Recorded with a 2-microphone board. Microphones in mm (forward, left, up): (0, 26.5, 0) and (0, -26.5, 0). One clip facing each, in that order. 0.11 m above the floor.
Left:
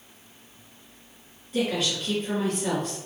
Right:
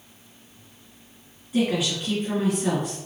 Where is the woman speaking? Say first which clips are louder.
Right 3 dB; 10° right (ahead or behind), 1.8 m.